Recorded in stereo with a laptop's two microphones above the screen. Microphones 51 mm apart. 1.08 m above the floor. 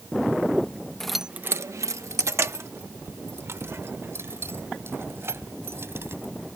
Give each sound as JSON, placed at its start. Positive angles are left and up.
{"t": 1.0, "sound": "keys jangling", "side_deg": 10}